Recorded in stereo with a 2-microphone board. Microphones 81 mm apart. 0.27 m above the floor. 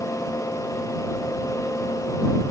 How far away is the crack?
No crack in this recording.